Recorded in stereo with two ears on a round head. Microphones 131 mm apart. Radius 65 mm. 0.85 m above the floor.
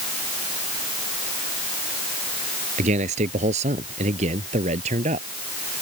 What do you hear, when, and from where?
2.8 s a man speaking: 55° right (ahead or behind); by 5.3 s 50° right (ahead or behind)